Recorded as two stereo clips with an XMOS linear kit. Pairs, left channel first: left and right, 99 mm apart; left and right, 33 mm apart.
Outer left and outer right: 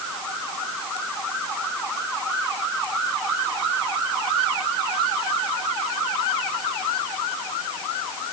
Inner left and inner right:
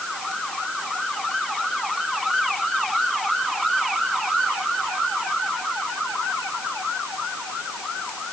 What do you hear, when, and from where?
Only background noise.